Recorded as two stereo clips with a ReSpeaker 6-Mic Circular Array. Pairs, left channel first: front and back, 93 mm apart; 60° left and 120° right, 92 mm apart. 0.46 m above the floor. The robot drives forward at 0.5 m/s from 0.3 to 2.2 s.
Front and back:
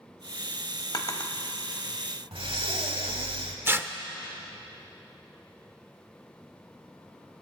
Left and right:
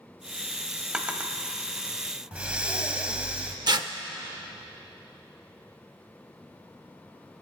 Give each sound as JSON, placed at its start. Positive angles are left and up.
{"t": 0.9, "sound": "a drawer", "azimuth_deg": -40, "distance_m": 1.0}
{"t": 2.3, "sound": "breathing", "azimuth_deg": 165, "distance_m": 0.9}
{"t": 3.7, "sound": "tearing paper", "azimuth_deg": -125, "distance_m": 0.6}